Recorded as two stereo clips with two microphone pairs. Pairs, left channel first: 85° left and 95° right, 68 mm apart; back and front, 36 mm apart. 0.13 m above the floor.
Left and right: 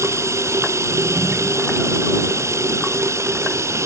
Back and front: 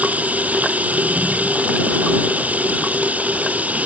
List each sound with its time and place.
0.0 s running water: 50° right